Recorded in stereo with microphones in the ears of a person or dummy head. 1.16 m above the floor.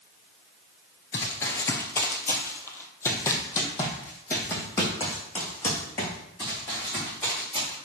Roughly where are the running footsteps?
Centre.